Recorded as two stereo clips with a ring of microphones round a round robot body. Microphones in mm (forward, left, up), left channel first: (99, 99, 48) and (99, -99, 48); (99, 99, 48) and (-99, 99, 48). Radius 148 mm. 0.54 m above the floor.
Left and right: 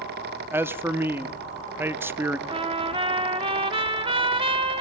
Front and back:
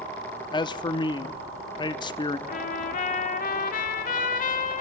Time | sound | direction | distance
0.5 | a man speaking | 25° right | 0.7 m
2.5 | a trumpet | 35° right | 1.3 m